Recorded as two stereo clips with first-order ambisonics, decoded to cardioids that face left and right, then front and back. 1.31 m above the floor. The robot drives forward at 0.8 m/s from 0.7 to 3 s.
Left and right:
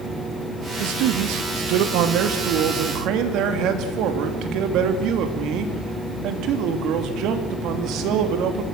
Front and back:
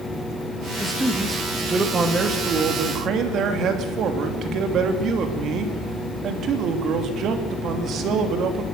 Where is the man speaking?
90° right, 2 m; by 8.6 s 130° right, 3 m.